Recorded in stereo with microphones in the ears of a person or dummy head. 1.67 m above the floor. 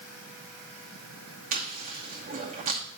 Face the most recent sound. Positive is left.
turn(degrees=-40)  # may be behind; listen again after turning